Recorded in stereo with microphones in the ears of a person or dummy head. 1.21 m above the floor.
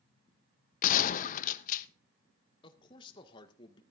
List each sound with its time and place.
0.8 s a gunshot: 50° left (ahead or behind), 0.6 m
2.6 s a man speaking: 25° left (ahead or behind), 1.5 m